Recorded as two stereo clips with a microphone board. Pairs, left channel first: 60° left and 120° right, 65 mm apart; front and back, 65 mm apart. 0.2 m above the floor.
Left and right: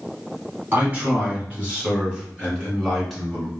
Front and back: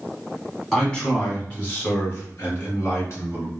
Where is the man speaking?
80° right, 1.7 m; by 3.5 s 35° right, 2.5 m.